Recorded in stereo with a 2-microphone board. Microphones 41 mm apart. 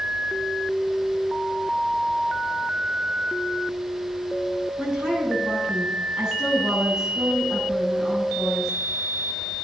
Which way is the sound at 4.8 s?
15° right (ahead or behind).